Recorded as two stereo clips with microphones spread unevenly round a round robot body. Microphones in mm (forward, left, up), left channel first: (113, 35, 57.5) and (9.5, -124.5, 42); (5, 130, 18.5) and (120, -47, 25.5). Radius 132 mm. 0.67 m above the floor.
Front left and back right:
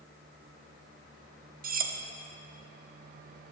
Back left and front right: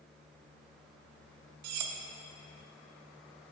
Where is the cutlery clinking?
75° right, 0.6 m.